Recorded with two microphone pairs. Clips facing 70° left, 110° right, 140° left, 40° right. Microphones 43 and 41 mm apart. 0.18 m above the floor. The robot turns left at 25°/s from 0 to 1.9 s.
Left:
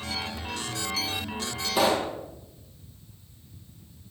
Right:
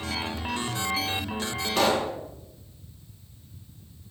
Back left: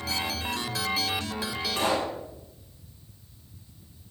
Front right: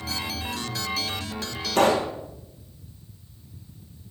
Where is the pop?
10° right, 3.5 m; by 2.1 s 15° right, 3.5 m.